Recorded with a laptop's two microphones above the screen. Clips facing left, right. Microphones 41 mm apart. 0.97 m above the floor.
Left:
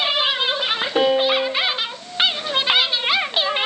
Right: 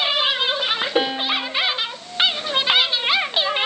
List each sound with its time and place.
0.9 s a piano: 15° right (ahead or behind), 1.0 m